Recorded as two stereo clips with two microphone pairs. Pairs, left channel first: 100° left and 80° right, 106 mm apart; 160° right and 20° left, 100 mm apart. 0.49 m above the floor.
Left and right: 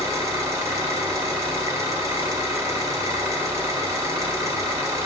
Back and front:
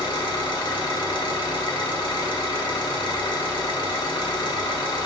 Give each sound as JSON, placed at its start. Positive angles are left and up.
{"t": 0.0, "sound": "an engine running", "azimuth_deg": -135, "distance_m": 1.6}